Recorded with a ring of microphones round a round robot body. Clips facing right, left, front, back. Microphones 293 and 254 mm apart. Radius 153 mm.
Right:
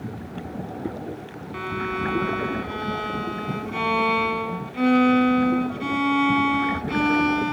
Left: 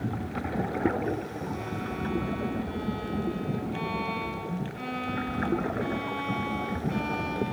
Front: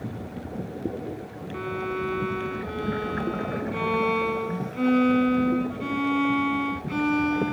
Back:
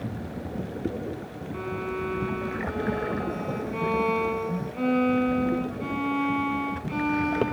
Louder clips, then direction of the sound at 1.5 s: Right 4 dB, front 2 dB; 70° right.